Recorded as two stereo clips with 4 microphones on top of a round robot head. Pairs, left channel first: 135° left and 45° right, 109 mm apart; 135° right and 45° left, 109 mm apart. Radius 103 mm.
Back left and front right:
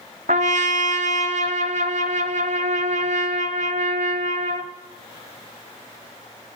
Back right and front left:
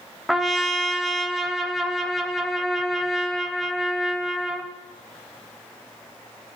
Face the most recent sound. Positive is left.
turn(degrees=-45)